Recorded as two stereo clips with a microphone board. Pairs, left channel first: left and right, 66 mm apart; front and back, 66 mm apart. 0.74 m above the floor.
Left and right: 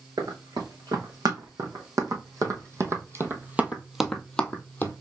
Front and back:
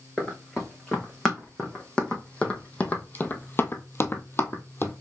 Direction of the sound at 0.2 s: 85° right.